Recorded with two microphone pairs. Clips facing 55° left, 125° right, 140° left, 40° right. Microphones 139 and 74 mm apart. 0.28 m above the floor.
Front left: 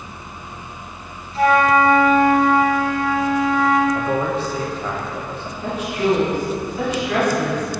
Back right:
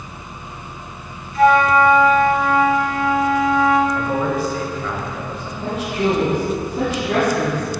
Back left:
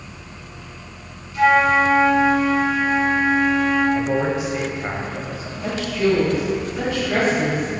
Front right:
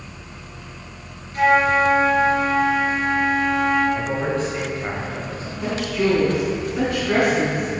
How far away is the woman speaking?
About 2.5 m.